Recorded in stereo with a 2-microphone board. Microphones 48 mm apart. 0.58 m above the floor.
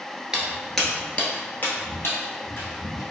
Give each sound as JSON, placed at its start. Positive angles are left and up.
{"t": 0.3, "sound": "footsteps", "side_deg": -15, "distance_m": 0.6}